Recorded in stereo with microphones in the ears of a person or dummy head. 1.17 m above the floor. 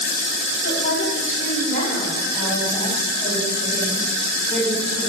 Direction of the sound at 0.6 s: 55° left (ahead or behind).